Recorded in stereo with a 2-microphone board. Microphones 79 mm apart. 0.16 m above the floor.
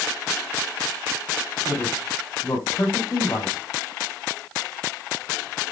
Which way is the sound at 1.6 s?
45° left (ahead or behind).